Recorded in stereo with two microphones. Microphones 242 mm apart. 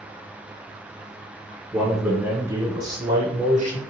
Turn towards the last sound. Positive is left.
turn(degrees=-35)  # may be behind; listen again after turning